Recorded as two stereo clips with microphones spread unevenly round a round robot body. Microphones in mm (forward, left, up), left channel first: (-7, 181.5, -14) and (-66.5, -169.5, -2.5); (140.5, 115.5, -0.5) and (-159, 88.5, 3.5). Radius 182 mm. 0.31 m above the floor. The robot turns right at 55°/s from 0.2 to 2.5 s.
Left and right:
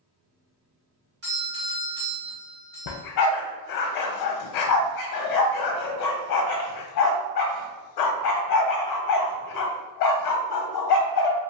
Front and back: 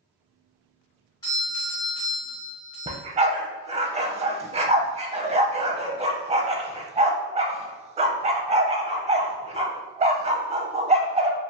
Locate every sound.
1.2 s a doorbell: 70° right, 1.7 m; by 3.0 s straight ahead, 1.7 m
2.9 s a dog barking: 115° left, 0.6 m